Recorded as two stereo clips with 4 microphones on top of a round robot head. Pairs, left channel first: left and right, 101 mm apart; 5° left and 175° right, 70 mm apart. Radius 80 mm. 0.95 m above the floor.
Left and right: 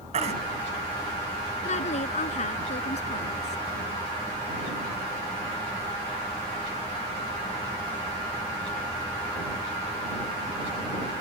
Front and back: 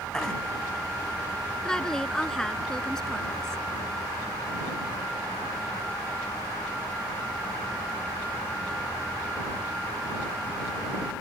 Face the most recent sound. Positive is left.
turn(degrees=90)